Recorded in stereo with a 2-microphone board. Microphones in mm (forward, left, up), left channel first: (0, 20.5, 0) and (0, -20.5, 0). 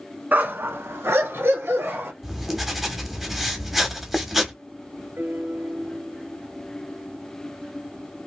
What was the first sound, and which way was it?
A dog barking, 50° right (ahead or behind).